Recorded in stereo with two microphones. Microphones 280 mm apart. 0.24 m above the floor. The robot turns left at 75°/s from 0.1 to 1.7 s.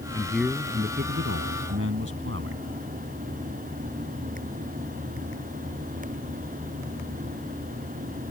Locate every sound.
0.1 s a man speaking: 20° left; by 2.6 s 100° right